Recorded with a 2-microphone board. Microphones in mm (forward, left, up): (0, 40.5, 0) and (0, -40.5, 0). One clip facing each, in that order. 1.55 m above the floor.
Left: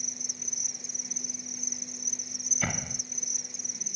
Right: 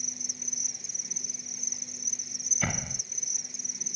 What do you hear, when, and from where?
0.0 s an insect: centre (ahead or behind)
2.6 s a door slam: centre (ahead or behind)